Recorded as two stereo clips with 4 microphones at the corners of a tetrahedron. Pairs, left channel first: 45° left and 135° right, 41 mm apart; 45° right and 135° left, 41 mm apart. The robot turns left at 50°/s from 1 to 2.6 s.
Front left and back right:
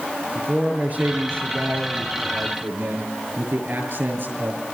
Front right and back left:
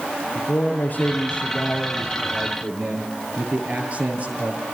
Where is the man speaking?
90° right, 7.5 m; by 4.6 s 170° right, 7.5 m.